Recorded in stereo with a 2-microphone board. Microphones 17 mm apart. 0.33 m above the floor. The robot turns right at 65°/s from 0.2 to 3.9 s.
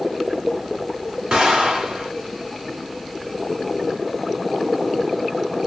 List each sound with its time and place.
1.3 s an explosion: 115° right, 2.0 m; by 2.1 s 65° right, 2.0 m